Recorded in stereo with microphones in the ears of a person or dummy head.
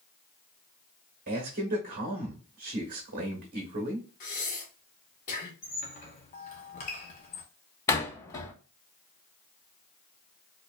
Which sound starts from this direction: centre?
A door slam, at 7.9 s.